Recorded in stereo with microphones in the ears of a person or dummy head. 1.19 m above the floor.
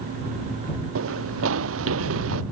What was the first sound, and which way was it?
Running footsteps, 85° right.